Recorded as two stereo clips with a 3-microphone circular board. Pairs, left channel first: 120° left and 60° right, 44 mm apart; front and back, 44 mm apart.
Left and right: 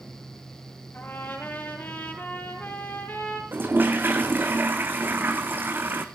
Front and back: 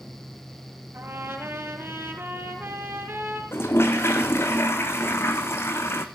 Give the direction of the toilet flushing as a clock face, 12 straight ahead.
1 o'clock.